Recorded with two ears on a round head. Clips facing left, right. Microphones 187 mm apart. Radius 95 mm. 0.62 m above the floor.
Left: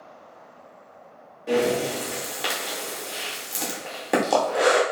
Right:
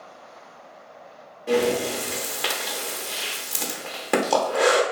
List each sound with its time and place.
1.5 s breathing: centre (ahead or behind), 0.7 m